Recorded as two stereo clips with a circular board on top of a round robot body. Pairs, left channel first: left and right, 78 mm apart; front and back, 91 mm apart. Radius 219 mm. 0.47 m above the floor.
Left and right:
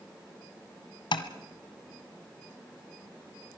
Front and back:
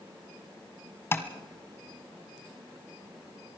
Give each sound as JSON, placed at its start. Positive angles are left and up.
{"t": 1.1, "sound": "tapping", "azimuth_deg": 65, "distance_m": 1.2}